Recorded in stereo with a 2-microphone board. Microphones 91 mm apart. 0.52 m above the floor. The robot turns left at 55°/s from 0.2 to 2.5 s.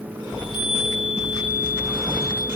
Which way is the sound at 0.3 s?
75° left.